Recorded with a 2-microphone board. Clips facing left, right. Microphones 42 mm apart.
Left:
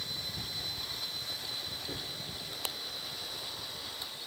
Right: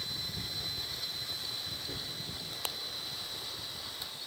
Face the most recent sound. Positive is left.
turn(degrees=15)  # may be behind; listen again after turning